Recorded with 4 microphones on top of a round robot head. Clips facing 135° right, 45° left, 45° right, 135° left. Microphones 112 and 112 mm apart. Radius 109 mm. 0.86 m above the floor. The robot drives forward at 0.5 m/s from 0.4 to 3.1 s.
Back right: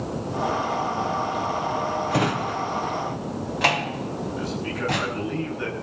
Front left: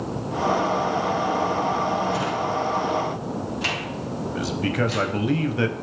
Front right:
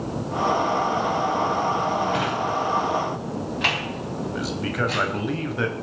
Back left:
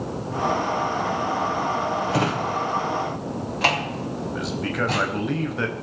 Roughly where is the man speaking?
Ahead left.